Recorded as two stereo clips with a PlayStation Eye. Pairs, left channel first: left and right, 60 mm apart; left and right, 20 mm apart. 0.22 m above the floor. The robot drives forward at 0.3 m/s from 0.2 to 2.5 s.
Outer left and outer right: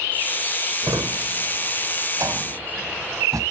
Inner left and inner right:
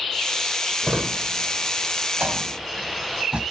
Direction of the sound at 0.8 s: 75° right (ahead or behind).